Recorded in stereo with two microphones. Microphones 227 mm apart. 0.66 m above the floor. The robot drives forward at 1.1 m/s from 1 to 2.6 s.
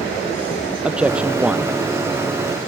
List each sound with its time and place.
0.8 s a man speaking: 5° right (ahead or behind)